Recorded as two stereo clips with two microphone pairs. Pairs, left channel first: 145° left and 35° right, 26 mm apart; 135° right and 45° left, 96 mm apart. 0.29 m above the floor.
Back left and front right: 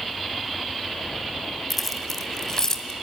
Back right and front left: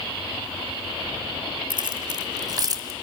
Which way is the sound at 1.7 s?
55° left.